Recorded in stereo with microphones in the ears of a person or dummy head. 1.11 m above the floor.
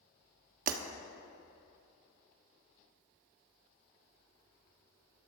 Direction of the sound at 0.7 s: 50° right (ahead or behind).